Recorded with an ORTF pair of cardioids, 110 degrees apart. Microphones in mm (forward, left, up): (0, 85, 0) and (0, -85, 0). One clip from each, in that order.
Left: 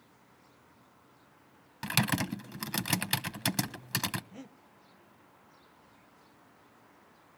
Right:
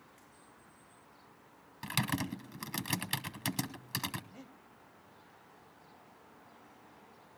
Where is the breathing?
25° left, 0.7 m.